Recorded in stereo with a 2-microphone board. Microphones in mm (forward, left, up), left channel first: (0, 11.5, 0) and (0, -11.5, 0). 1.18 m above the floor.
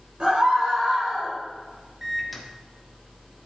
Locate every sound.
0.2 s a scream: 45° right (ahead or behind), 5 m; by 1.4 s 25° right (ahead or behind), 4 m
2.0 s a microwave: 10° right (ahead or behind), 1.5 m